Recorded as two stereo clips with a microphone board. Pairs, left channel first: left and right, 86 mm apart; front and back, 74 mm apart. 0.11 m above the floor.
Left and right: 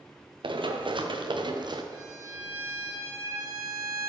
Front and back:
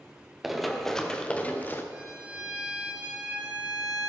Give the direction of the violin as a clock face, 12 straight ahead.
4 o'clock.